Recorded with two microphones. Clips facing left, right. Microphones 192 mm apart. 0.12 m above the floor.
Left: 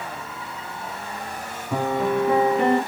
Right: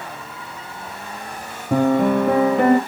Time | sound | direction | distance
1.7 | a piano | 60° right (ahead or behind) | 0.8 m